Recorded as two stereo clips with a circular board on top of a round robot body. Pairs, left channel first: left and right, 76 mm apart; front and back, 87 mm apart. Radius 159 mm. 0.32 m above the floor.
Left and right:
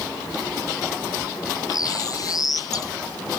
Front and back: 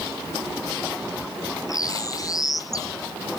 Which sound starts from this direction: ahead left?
A bird, at 1.7 s.